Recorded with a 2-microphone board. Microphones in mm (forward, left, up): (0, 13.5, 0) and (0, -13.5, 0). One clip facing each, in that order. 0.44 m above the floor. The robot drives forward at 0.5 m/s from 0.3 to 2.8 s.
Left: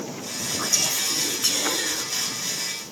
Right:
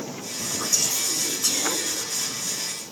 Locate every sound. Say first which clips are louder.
0.6 s whispering: left 1 dB; 20° left (ahead or behind), 2.5 m; by 2.0 s 25° left (ahead or behind), 2.0 m